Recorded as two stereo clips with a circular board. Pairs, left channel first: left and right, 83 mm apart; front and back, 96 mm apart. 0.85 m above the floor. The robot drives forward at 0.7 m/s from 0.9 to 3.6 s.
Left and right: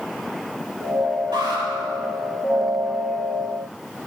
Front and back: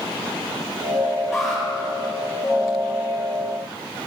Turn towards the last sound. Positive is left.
turn(degrees=-110)